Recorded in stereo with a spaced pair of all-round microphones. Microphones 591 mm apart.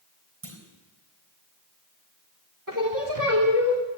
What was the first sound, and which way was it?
A clunk, 60° right (ahead or behind).